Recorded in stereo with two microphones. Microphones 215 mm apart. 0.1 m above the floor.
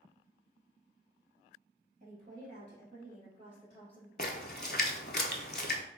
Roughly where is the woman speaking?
Right.